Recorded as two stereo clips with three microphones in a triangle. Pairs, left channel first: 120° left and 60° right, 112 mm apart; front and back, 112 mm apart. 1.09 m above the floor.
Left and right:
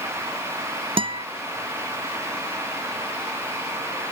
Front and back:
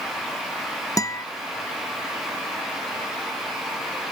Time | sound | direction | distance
1.0 | a guitar | 50° right | ?